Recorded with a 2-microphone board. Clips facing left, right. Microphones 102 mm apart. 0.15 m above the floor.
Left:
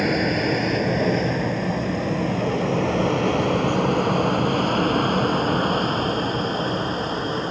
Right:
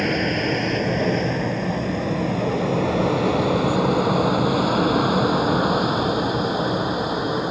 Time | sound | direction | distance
0.0 | an aircraft | 5° left (ahead or behind) | ?